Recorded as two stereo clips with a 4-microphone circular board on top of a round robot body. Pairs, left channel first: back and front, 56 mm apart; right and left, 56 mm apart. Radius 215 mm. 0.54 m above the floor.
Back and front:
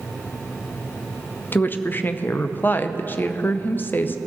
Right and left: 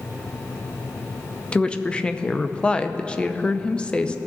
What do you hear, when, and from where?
1.5 s a woman speaking: 150° right, 0.8 m